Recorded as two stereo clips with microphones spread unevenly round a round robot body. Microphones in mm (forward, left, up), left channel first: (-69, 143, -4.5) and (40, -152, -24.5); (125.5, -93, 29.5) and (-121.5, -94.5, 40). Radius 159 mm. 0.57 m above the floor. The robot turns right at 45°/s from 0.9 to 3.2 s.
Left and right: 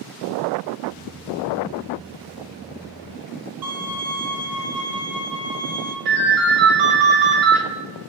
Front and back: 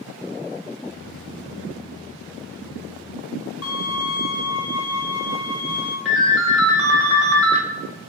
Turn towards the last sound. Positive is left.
turn(degrees=-95)